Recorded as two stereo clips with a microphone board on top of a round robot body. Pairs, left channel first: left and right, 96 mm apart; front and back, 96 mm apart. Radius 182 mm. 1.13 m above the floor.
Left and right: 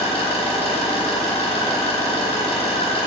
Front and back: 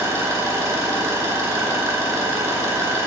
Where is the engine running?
115° left, 3 m.